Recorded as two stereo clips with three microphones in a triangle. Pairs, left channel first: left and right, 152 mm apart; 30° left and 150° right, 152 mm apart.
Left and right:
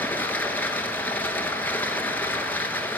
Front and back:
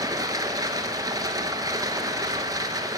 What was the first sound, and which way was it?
Running water, 160° left.